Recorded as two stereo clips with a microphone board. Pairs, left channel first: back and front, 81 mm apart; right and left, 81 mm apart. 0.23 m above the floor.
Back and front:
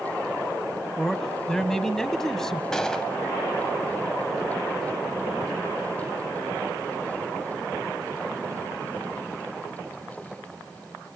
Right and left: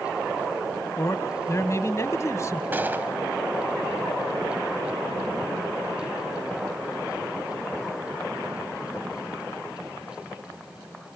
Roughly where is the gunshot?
Left.